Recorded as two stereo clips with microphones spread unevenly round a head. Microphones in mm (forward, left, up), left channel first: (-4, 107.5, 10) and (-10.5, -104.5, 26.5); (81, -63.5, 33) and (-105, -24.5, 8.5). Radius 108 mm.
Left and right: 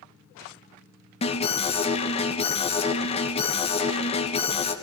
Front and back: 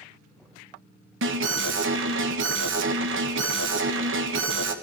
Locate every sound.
1.2 s an alarm: 150° left, 3 m